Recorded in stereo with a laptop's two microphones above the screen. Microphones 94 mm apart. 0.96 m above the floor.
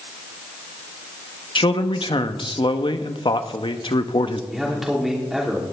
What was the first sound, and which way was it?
A man speaking, 60° left (ahead or behind).